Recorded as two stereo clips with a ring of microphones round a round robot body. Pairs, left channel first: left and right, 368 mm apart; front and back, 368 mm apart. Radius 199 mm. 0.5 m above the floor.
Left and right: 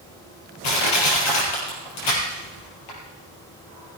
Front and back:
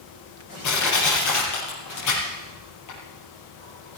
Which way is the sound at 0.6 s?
50° left.